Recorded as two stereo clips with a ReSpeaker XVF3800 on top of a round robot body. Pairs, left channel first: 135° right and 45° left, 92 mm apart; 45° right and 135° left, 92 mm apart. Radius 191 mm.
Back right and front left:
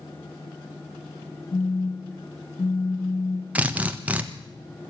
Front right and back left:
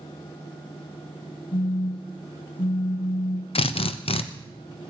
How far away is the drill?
About 1.3 m.